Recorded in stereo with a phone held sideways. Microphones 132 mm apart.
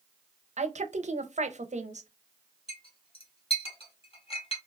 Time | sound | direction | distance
0.6 | a woman speaking | 60° right (ahead or behind) | 0.6 m
2.7 | a clink | 45° left (ahead or behind) | 1.1 m